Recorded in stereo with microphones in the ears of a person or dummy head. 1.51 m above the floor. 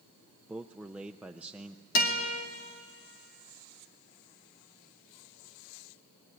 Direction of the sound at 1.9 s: 50° left (ahead or behind).